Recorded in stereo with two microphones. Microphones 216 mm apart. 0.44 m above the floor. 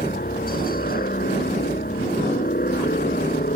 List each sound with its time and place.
0.0 s a helicopter: 45° left (ahead or behind)